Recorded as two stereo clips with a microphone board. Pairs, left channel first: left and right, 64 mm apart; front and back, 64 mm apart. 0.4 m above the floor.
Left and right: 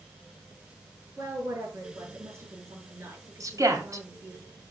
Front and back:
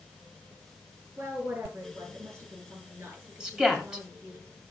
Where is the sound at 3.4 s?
100° right, 2.5 m.